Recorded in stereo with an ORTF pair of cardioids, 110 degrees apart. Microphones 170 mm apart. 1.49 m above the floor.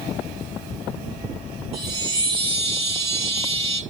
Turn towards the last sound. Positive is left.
turn(degrees=-35)